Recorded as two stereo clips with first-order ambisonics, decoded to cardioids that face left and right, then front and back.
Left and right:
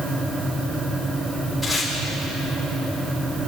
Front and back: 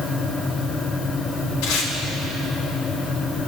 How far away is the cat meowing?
No cat meowing in this recording.